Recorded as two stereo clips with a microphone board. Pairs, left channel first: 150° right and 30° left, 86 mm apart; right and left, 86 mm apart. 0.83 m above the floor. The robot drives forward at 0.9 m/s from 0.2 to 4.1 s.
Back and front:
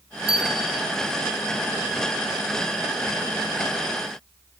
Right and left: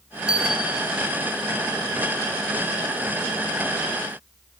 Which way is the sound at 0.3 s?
10° left.